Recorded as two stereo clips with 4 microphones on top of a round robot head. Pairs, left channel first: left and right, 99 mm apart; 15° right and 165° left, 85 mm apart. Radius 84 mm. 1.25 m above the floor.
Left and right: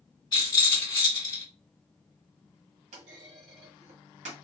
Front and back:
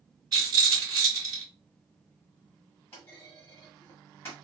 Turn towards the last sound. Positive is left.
turn(degrees=-85)